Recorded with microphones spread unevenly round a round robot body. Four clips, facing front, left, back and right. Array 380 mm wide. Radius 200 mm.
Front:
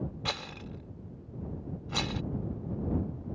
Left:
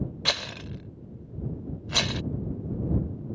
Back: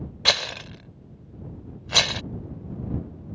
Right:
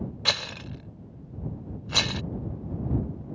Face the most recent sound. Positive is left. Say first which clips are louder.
# even, back 9 dB
turn(degrees=-175)